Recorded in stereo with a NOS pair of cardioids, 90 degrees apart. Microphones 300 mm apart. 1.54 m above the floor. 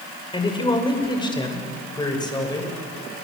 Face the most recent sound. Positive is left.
turn(degrees=15)